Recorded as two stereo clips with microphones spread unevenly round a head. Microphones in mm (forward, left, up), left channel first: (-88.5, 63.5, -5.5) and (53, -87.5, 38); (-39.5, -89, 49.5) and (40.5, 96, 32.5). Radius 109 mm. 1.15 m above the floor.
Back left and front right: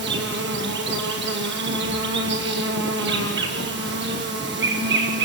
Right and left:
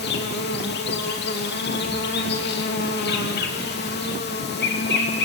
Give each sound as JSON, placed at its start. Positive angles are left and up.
{"t": 0.0, "sound": "an insect", "azimuth_deg": -80, "distance_m": 3.0}